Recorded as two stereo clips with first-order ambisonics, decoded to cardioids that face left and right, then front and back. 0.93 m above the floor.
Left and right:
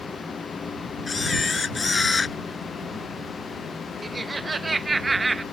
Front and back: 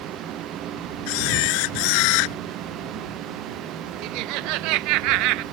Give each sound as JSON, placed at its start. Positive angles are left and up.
{"t": 1.1, "sound": "a camera shutter", "azimuth_deg": 10}
{"t": 4.0, "sound": "laughter", "azimuth_deg": -170}